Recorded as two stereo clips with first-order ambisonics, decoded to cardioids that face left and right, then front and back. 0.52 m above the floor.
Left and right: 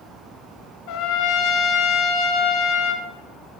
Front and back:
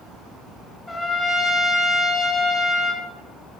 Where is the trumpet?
80° left, 0.9 m.